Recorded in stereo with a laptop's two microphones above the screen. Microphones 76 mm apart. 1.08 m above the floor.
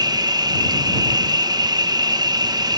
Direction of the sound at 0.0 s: 60° right (ahead or behind).